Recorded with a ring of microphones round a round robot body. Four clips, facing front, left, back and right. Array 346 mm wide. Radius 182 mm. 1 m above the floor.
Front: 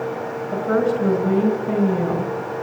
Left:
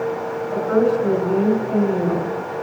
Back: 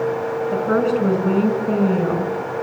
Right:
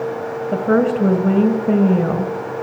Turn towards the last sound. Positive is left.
turn(degrees=-100)